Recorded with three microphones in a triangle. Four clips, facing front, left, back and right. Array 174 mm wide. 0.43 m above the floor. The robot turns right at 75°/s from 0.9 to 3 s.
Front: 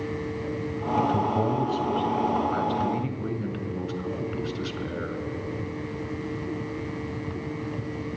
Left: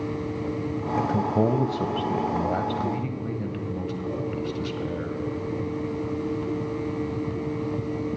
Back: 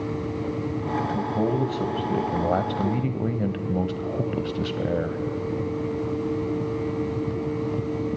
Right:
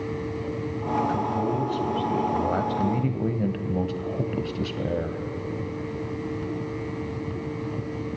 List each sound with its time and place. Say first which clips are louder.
1.0 s a man speaking: left 2 dB, front 3 dB; 60° left, 2.5 m; by 5.2 s 145° right, 2.5 m